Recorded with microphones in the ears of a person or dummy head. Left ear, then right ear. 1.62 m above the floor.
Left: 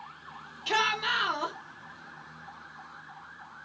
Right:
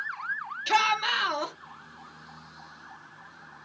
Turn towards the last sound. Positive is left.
turn(degrees=-25)  # may be behind; listen again after turning